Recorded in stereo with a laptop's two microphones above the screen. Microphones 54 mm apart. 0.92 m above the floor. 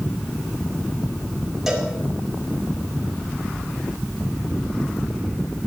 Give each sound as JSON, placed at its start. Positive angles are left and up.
{"t": 1.7, "sound": "a cowbell", "side_deg": -5, "distance_m": 3.0}